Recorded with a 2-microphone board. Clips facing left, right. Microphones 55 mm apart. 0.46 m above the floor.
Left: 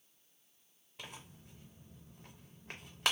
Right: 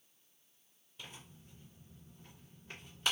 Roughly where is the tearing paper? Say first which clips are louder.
Left 2 dB; left.